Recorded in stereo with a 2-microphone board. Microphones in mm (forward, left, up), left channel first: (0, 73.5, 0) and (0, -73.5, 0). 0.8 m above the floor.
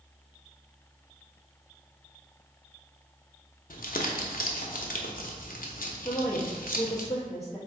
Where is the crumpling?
75° left (ahead or behind), 0.5 m.